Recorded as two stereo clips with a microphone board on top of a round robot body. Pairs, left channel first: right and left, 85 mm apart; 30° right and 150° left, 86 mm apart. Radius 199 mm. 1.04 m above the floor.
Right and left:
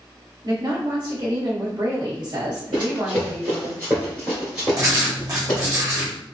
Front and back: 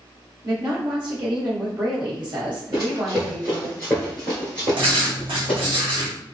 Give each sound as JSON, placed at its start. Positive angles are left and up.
{"t": 0.4, "sound": "a woman speaking", "azimuth_deg": 125, "distance_m": 1.4}
{"t": 2.7, "sound": "running footsteps", "azimuth_deg": 105, "distance_m": 1.2}
{"t": 4.8, "sound": "writing", "azimuth_deg": 140, "distance_m": 1.3}